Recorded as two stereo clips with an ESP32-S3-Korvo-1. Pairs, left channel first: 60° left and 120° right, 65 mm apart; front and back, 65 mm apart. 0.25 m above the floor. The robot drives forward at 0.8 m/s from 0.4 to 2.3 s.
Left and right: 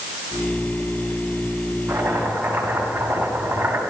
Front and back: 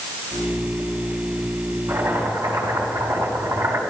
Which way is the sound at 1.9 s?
175° left.